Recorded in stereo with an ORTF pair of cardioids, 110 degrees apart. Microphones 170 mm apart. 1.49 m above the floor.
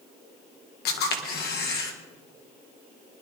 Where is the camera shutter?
70° left, 2.0 m.